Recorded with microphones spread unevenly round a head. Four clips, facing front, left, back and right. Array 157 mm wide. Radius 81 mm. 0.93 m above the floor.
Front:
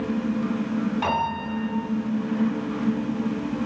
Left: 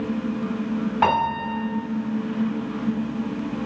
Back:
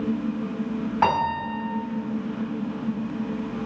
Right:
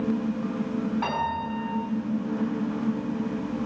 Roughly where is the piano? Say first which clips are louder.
Left 7 dB, back 3 dB; behind left.